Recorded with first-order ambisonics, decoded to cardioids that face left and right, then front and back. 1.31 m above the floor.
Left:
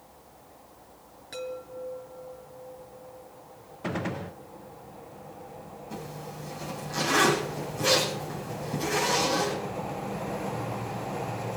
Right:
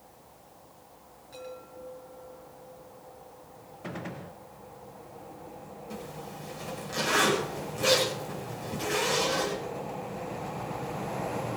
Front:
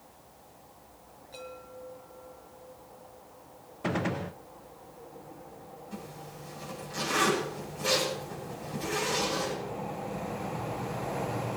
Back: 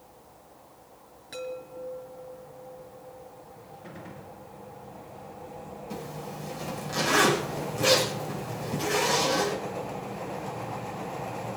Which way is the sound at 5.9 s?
155° right.